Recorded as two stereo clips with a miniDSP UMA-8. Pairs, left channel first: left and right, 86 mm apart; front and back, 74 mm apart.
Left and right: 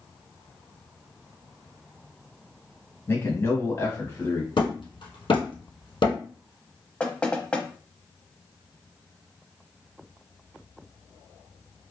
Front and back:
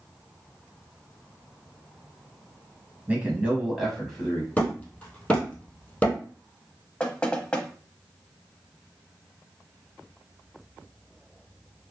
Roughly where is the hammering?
Left.